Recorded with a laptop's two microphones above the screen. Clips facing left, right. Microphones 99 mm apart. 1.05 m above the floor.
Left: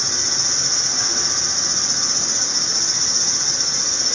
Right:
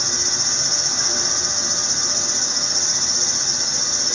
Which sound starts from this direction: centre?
An insect, at 0.0 s.